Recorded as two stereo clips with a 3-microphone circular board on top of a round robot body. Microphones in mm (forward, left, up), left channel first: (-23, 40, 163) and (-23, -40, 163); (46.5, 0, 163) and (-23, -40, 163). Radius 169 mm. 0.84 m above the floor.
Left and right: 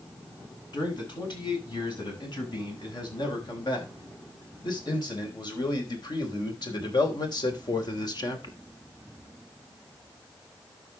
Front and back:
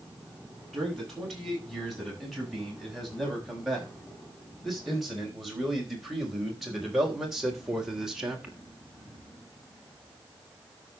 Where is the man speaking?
120° left, 8 m; by 8.6 s 125° left, 3 m.